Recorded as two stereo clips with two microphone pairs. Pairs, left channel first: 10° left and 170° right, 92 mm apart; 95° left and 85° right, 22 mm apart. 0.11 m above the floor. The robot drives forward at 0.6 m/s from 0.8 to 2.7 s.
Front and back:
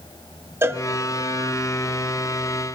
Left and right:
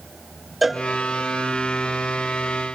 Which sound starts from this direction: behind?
A cowbell, at 0.6 s.